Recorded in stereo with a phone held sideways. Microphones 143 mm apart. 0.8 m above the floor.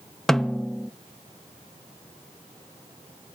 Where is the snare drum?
5° left (ahead or behind), 0.6 m.